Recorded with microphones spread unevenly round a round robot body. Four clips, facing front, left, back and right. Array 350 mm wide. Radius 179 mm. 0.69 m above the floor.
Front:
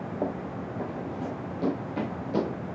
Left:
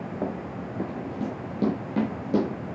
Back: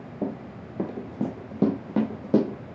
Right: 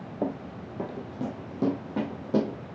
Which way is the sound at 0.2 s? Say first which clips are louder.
Right 2 dB, back 1 dB; 170° right.